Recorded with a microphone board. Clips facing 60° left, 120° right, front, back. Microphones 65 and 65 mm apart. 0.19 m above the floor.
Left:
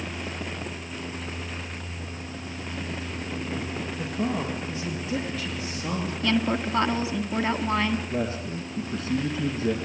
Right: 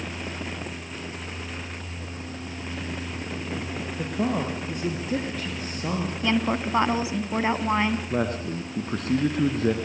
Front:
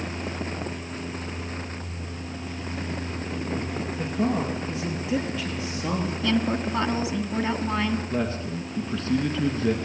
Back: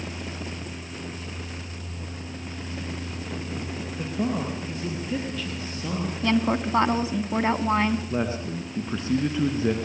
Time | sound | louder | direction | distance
4.0 | a man speaking | right 3 dB, front 2 dB | 90° right | 4 m
6.2 | a woman speaking | even, back 3 dB | straight behind | 1.8 m
8.1 | a man speaking | right 2 dB, even | 110° right | 2 m